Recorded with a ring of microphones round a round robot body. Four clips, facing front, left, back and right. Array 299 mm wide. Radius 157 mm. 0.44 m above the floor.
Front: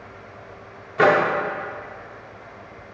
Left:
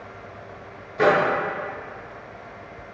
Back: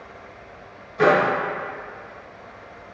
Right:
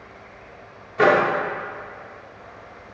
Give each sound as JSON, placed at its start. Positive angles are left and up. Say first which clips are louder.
{"t": 1.0, "sound": "a microwave", "louder": "right 2 dB, even", "azimuth_deg": -20, "distance_m": 0.6}